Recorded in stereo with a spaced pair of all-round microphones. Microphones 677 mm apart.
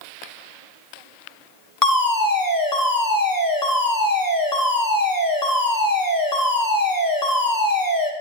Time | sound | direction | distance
1.8 | a fire alarm | 30° left (ahead or behind) | 2 m